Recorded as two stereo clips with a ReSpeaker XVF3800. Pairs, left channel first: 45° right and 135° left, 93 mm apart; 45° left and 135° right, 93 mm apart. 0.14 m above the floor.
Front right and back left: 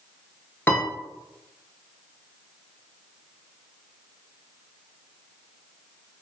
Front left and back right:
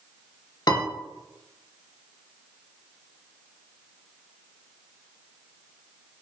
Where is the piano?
20° left, 0.6 m.